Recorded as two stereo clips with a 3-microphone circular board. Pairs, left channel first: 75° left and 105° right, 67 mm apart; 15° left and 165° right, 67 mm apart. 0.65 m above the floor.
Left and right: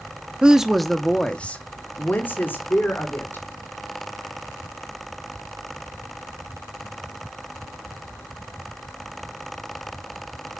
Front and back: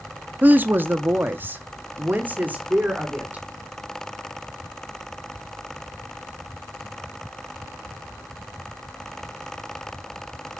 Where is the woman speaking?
160° right, 0.6 m; by 3.5 s 130° left, 1.7 m.